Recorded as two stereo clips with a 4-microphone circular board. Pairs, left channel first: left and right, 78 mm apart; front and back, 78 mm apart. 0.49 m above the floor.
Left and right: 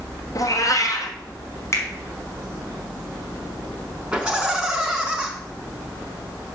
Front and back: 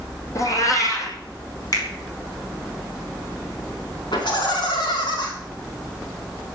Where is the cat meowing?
45° left, 2 m.